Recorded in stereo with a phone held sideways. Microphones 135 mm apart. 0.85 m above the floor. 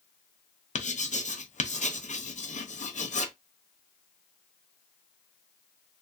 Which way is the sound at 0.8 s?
65° left (ahead or behind).